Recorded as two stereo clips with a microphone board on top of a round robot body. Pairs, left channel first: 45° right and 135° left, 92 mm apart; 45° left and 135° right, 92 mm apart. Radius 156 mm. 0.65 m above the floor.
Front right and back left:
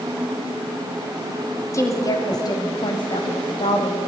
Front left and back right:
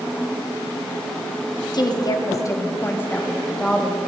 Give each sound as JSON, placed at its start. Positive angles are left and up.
{"t": 1.7, "sound": "a woman speaking", "azimuth_deg": 10, "distance_m": 1.4}